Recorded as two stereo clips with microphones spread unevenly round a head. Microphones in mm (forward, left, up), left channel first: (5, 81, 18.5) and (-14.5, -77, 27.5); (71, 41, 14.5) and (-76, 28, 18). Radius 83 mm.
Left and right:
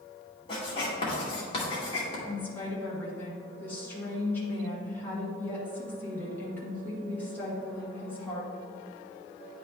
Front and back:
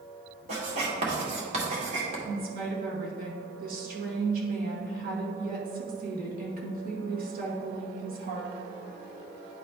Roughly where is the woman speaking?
Behind.